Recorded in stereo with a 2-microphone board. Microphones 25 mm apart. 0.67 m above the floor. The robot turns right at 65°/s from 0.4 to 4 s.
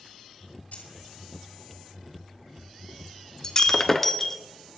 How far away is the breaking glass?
About 0.6 m.